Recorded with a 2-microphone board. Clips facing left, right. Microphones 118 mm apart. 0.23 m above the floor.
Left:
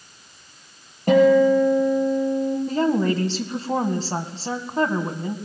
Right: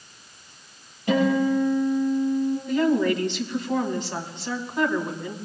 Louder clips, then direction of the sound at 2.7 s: Right 1 dB; 40° left (ahead or behind).